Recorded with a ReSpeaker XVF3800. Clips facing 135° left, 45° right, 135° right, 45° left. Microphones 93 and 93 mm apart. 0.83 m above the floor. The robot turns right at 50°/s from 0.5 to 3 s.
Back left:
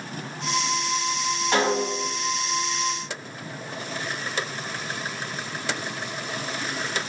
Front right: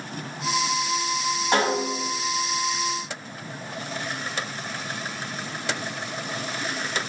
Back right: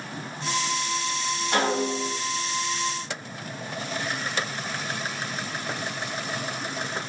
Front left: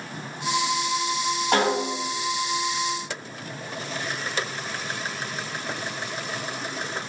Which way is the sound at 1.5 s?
25° left.